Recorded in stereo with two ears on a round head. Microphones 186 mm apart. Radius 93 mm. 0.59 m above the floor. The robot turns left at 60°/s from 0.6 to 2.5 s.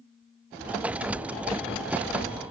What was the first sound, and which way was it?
Only background noise.